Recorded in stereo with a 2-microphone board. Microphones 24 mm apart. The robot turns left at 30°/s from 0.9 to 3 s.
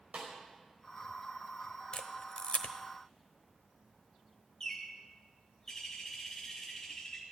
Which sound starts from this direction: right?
A snare drum, at 0.1 s.